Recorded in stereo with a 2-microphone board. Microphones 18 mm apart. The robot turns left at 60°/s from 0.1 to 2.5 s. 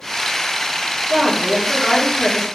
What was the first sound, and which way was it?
A woman speaking, 135° right.